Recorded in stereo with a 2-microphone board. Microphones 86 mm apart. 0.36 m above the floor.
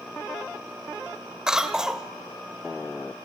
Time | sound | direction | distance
1.5 | a cough | 10° right (ahead or behind) | 1.2 m